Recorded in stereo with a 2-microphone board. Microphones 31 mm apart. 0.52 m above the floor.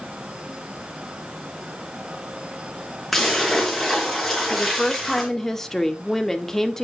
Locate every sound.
3.1 s a splash: 10° left (ahead or behind), 4.5 m
4.5 s a woman speaking: 15° left (ahead or behind), 1.2 m